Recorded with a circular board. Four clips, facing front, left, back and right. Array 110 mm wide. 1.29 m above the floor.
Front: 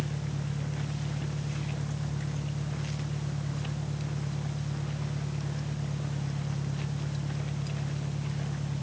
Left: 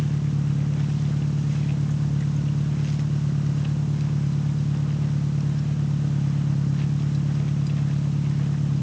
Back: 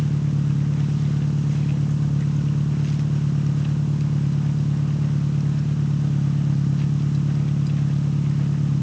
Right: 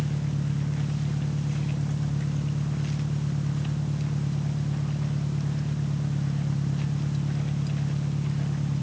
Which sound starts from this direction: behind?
An engine running, at 0.0 s.